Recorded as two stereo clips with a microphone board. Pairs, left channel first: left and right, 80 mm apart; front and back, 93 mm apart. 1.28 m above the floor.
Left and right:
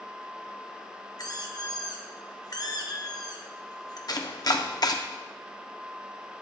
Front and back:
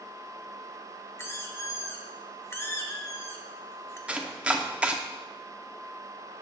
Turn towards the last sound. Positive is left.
turn(degrees=105)